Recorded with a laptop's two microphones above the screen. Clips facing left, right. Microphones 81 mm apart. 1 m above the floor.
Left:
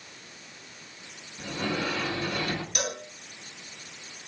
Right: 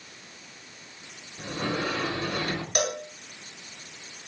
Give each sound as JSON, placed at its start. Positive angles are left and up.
{"t": 1.4, "sound": "a sliding door", "side_deg": -40, "distance_m": 4.5}
{"t": 2.8, "sound": "a cowbell", "side_deg": -60, "distance_m": 5.0}